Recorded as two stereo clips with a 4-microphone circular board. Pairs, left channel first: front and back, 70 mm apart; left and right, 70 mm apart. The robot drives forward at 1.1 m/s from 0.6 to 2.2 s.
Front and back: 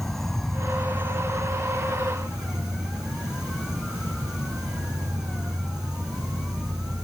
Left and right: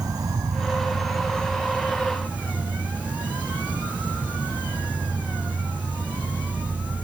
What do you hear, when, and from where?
0.0 s an insect: 85° right, 0.7 m; by 7.0 s 160° right, 1.8 m